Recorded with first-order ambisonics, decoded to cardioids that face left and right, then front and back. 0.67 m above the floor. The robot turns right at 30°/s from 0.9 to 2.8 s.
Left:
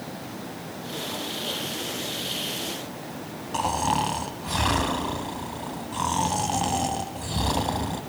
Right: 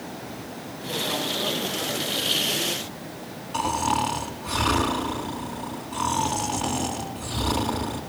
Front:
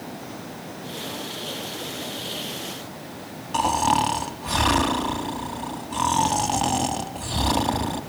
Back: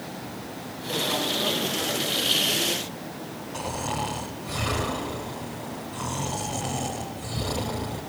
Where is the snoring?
15° left, 2.5 m.